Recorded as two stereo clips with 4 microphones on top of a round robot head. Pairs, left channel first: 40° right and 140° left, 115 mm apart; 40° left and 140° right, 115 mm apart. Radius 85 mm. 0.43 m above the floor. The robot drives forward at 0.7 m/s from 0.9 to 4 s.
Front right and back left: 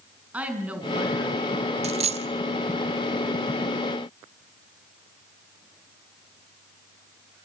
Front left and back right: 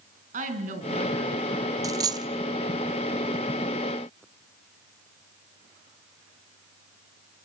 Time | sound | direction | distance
0.3 | a woman speaking | 140° right | 5 m
1.8 | a dropped coin | 160° left | 0.8 m